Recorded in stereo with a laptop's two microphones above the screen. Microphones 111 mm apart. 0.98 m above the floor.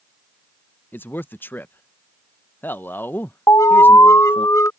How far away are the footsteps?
No footsteps in this recording.